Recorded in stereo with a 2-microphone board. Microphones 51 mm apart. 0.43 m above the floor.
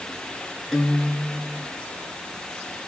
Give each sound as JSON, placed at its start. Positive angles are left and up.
{"t": 0.7, "sound": "a guitar", "side_deg": 5, "distance_m": 2.5}